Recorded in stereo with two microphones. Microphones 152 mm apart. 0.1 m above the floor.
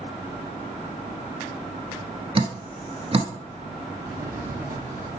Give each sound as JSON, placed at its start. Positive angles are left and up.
{"t": 2.4, "sound": "dripping", "side_deg": -40, "distance_m": 1.0}
{"t": 4.0, "sound": "a drawer", "side_deg": -70, "distance_m": 1.4}